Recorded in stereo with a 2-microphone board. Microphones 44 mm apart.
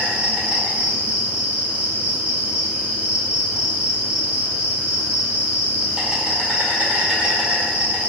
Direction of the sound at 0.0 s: 25° right (ahead or behind).